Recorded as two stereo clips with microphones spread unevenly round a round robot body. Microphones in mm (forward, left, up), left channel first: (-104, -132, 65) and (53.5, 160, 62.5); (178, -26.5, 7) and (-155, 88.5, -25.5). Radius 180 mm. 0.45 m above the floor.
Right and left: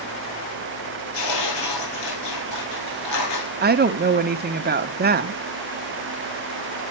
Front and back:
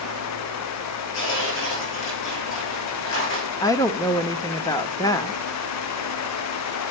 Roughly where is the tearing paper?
Right.